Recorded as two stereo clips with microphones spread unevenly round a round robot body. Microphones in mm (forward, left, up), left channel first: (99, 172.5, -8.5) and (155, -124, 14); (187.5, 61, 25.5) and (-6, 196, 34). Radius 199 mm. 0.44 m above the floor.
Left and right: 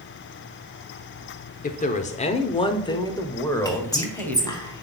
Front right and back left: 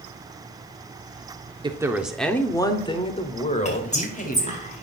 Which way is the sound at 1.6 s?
85° left.